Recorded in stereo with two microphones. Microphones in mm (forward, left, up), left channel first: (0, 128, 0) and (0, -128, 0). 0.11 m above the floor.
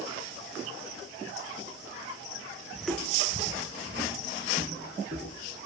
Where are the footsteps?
5° right (ahead or behind), 1.2 m; by 5.4 s 40° left (ahead or behind), 4.5 m.